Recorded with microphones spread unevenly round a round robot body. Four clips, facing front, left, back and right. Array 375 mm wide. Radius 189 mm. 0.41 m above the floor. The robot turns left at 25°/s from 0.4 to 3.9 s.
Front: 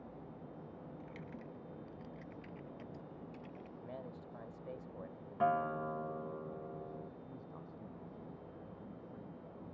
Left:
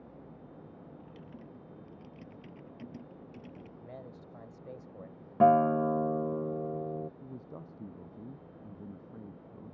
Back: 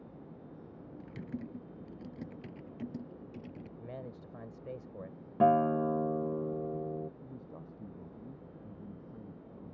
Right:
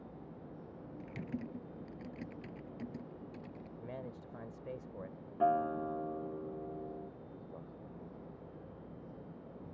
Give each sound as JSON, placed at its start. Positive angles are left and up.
{"t": 1.0, "sound": "typing on a keyboard", "azimuth_deg": -135}
{"t": 3.8, "sound": "a man speaking", "azimuth_deg": -170}
{"t": 5.4, "sound": "a guitar", "azimuth_deg": 115}
{"t": 7.2, "sound": "a man speaking", "azimuth_deg": 120}